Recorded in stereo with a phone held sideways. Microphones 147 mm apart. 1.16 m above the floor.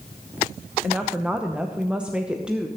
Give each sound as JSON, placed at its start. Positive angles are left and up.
{"t": 0.8, "sound": "a woman speaking", "side_deg": -5, "distance_m": 0.9}